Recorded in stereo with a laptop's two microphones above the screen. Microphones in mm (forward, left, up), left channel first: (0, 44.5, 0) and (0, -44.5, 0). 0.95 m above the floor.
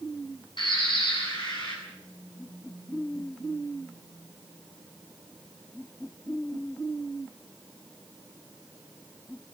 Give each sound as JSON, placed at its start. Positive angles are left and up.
{"t": 0.6, "sound": "a bird", "side_deg": 60, "distance_m": 8.5}